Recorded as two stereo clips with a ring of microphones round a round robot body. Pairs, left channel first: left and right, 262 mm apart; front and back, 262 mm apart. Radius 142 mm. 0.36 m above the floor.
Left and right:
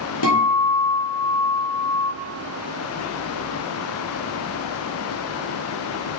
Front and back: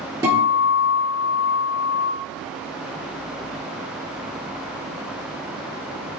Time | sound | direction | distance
0.2 | a guitar | 100° left | 3.5 m